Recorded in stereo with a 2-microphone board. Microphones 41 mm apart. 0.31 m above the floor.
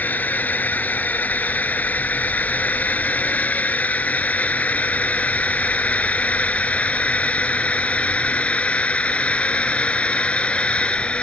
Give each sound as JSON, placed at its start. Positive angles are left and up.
{"t": 0.0, "sound": "a drone", "side_deg": 45}